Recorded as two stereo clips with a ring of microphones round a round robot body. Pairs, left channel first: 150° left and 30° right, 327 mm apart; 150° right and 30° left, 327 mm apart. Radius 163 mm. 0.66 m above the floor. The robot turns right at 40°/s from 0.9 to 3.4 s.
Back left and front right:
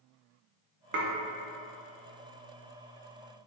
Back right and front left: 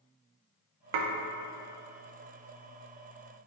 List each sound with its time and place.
0.9 s dishes clattering: 25° left, 0.5 m; by 1.1 s 35° left, 0.5 m